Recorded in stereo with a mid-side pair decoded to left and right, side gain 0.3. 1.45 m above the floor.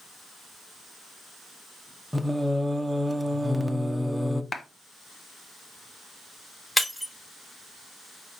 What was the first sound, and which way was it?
Singing, 10° right.